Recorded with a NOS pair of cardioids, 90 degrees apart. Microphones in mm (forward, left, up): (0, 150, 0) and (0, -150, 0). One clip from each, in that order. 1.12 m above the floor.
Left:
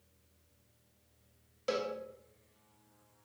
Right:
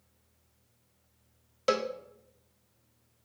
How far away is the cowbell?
About 1.0 m.